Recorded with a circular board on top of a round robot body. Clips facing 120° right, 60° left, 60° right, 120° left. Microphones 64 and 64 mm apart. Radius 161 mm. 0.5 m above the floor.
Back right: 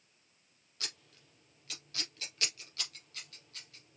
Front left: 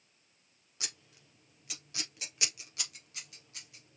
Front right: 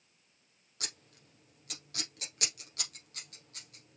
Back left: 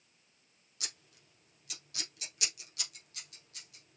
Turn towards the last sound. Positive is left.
turn(degrees=-15)